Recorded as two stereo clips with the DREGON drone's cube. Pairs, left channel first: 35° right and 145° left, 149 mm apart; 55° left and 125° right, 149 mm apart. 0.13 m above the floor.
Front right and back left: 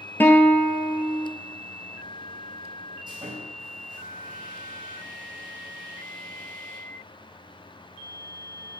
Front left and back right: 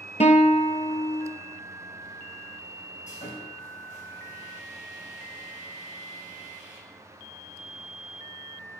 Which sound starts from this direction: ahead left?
A guitar, at 0.2 s.